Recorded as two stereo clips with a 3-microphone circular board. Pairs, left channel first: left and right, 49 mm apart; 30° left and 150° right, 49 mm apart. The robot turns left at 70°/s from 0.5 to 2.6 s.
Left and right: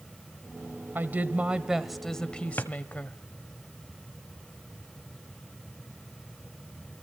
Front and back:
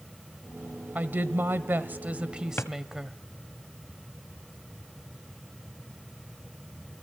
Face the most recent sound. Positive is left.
turn(degrees=60)